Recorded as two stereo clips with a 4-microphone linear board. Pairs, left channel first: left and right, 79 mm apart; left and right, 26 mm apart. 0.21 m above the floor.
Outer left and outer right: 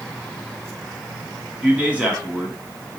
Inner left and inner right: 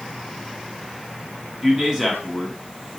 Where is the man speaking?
15° right (ahead or behind), 1.5 m.